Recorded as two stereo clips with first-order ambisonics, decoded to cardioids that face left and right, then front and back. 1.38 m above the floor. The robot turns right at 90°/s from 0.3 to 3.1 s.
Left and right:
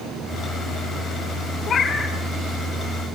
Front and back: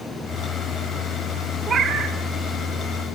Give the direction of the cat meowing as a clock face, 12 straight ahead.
8 o'clock.